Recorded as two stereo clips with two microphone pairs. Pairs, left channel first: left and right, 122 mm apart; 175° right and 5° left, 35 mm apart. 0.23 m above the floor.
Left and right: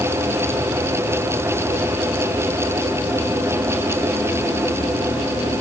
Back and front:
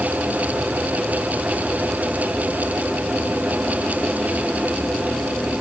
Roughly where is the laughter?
I don't hear laughter.